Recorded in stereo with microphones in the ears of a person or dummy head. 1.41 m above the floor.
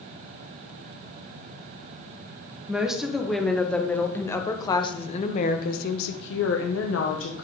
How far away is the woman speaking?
About 2.0 m.